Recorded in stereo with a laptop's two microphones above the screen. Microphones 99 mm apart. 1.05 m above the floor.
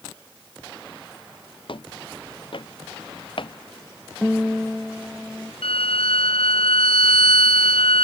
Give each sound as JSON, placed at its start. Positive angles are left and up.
{"t": 1.7, "sound": "footsteps", "side_deg": 60}
{"t": 4.2, "sound": "a guitar", "side_deg": 5}
{"t": 5.6, "sound": "a violin", "side_deg": 80}